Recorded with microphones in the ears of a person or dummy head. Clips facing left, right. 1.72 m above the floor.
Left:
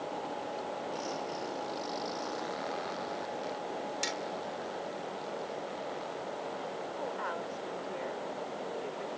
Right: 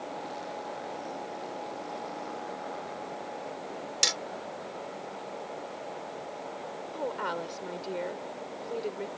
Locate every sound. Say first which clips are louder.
4.0 s hammering: even; 75° right (ahead or behind)
6.9 s a woman speaking: right 7 dB; 50° right (ahead or behind)